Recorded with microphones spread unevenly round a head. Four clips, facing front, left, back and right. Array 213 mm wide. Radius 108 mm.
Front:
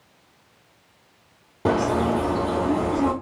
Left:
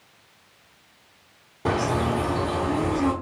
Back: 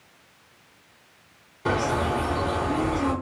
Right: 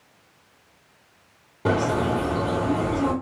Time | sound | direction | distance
1.6 | a bird | 10° right | 1.3 m